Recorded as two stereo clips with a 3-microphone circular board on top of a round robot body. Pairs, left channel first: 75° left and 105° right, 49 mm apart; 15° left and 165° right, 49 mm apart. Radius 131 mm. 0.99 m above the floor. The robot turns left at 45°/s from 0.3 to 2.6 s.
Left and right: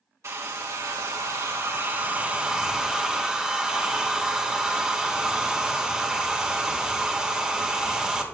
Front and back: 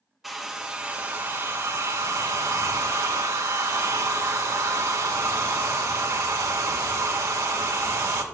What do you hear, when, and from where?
0.2 s a hair dryer: 80° right, 1.5 m; by 8.2 s 175° left, 1.5 m